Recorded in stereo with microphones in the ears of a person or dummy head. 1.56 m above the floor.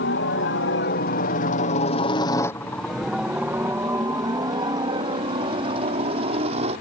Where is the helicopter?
60° left (ahead or behind); by 6.8 s 35° right (ahead or behind).